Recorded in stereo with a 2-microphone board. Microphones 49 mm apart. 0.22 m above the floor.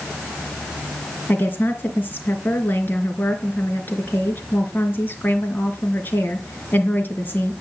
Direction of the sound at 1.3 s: 40° left (ahead or behind).